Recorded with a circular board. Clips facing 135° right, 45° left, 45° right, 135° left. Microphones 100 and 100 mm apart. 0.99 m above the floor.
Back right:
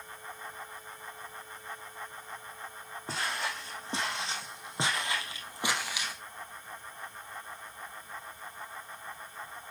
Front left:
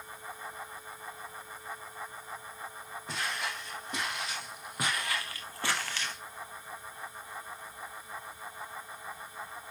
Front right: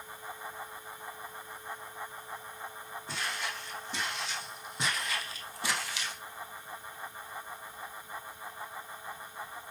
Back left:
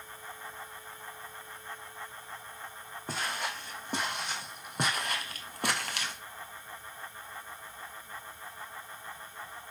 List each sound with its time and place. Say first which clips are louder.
3.1 s footsteps: back right 2 dB, back left 3 dB; 170° left, 3.5 m; by 6.2 s 145° left, 1.8 m